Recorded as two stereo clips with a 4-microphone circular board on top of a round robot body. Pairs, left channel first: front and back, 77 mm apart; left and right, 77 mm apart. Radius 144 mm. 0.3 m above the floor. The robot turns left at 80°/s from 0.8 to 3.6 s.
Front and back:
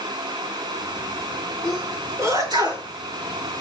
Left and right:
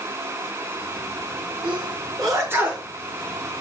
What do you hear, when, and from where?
1.6 s a sneeze: 85° right, 7.5 m; by 2.9 s straight behind, 7.5 m